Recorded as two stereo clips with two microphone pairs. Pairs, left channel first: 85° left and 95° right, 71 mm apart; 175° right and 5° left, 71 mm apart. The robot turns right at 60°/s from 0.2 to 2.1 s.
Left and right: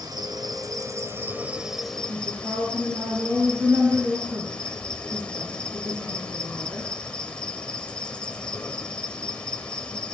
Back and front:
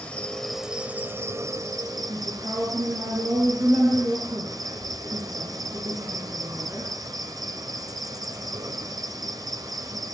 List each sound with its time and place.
0.0 s an insect: 100° right, 3.5 m; by 10.1 s 10° left, 3.5 m
2.1 s a woman speaking: 30° right, 8.5 m